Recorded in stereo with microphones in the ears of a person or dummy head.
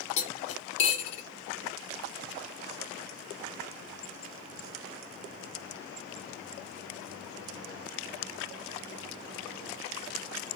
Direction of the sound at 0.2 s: 40° left (ahead or behind).